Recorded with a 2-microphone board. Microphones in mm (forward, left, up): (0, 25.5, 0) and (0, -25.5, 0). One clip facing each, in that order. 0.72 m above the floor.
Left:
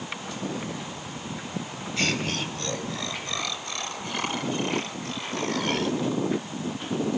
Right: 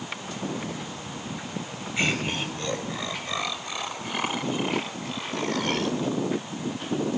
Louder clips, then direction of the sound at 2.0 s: Right 1 dB; 15° right (ahead or behind).